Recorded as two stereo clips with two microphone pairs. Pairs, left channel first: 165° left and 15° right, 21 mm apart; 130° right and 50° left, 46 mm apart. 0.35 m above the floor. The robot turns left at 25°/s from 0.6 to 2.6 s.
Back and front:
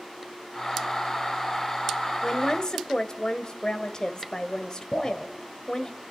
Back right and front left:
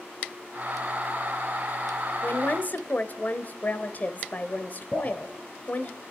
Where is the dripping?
170° left, 4.5 m.